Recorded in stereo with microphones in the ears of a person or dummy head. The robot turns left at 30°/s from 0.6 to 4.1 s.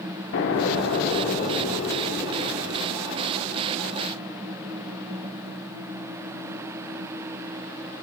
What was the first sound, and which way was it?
An explosion, 90° left.